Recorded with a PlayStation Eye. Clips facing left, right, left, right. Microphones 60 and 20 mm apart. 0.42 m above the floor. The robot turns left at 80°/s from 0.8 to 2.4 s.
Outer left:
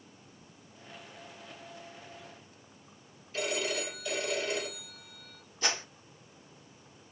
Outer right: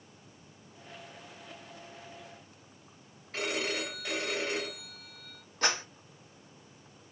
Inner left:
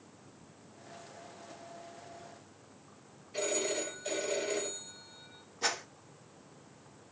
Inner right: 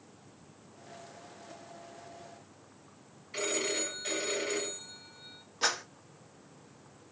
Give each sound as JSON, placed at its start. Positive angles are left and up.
{"t": 3.3, "sound": "a phone ringing", "side_deg": -80, "distance_m": 3.5}
{"t": 5.6, "sound": "a clap", "side_deg": -60, "distance_m": 3.0}